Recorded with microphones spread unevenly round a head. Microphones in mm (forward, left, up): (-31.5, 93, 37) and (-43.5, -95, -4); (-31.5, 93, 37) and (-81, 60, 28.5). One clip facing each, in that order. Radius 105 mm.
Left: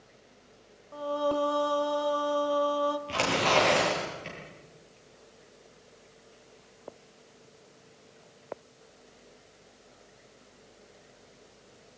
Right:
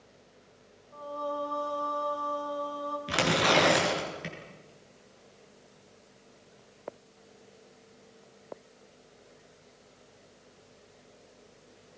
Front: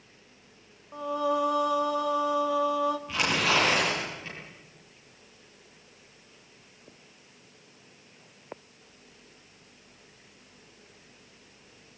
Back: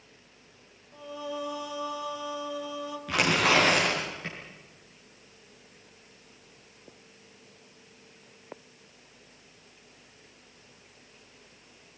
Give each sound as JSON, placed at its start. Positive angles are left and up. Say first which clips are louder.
{"t": 0.9, "sound": "singing", "louder": "left 7 dB, front 9 dB", "azimuth_deg": 65, "distance_m": 1.7}
{"t": 3.1, "sound": "tearing paper", "louder": "right 1 dB, back 2 dB", "azimuth_deg": -95, "distance_m": 7.5}